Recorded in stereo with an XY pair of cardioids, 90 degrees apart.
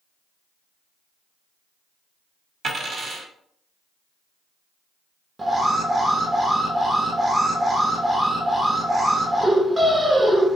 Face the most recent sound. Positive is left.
turn(degrees=-25)